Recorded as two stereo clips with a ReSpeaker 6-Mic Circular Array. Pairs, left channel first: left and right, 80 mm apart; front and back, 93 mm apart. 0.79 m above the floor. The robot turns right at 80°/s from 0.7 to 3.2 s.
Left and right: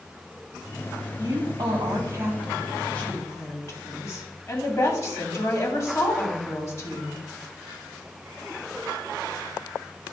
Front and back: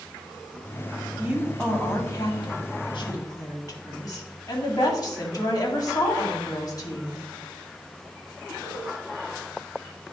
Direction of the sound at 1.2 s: 120° right.